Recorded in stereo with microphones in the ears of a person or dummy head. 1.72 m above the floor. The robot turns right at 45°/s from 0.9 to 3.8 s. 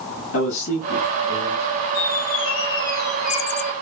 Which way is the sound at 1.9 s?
120° left.